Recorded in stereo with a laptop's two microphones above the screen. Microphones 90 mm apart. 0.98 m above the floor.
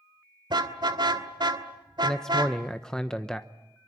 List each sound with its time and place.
0.5 s a car horn: 60° right (ahead or behind), 2.5 m
2.0 s a man speaking: 5° left (ahead or behind), 0.8 m